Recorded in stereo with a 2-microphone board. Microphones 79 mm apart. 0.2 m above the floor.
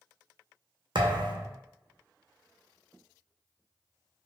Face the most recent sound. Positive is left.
turn(degrees=-75)  # may be behind; listen again after turning